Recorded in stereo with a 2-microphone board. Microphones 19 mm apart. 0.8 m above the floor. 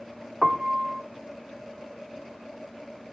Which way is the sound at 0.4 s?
30° right (ahead or behind).